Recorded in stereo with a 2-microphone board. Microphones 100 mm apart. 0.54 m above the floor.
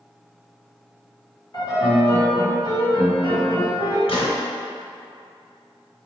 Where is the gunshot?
80° left, 1.4 m.